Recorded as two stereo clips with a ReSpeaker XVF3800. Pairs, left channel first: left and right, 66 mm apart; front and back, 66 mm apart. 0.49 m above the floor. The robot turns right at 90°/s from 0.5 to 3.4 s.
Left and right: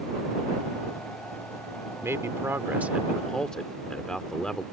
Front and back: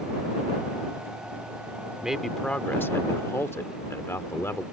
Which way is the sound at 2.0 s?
110° right.